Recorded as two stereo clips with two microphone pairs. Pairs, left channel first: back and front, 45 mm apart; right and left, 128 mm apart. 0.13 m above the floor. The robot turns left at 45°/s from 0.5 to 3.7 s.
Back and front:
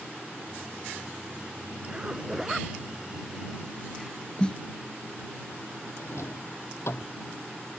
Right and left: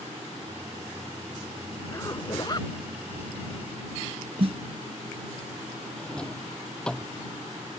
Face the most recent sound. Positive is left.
turn(degrees=-170)